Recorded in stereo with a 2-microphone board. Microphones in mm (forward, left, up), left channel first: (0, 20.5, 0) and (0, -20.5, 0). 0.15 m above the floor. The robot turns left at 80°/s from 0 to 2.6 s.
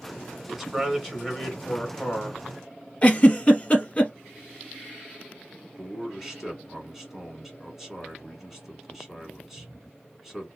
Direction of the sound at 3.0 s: 30° left (ahead or behind).